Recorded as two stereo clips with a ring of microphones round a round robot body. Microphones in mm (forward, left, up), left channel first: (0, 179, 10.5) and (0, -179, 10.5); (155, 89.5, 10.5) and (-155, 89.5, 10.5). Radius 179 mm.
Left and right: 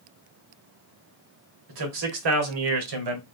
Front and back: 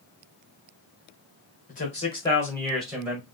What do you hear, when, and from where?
1.7 s a man speaking: 65° right, 1.7 m; by 3.2 s 100° right, 1.6 m